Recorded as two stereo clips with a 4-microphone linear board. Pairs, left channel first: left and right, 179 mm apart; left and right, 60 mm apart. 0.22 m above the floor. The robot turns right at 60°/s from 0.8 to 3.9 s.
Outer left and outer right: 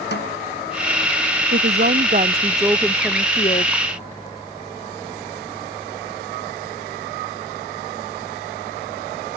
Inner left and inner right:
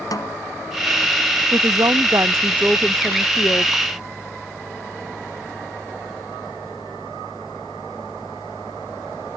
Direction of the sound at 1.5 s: 85° right.